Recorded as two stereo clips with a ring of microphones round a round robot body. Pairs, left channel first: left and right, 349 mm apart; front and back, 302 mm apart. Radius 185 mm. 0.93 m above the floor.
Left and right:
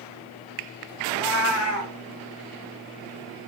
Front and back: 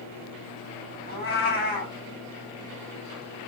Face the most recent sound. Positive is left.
turn(degrees=60)